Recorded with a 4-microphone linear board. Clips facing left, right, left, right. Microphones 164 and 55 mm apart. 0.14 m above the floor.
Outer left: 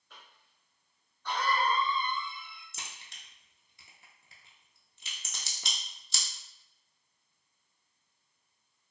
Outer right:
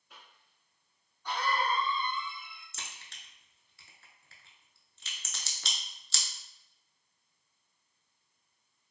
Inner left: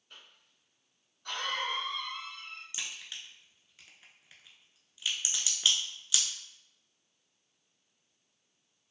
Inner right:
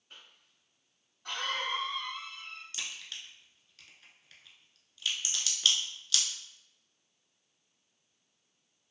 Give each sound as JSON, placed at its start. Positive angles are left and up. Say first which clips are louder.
{"t": 0.1, "sound": "a cough", "louder": "even, even", "side_deg": -15, "distance_m": 1.3}
{"t": 2.7, "sound": "a crack", "louder": "outer right 1 dB, even", "side_deg": 20, "distance_m": 0.5}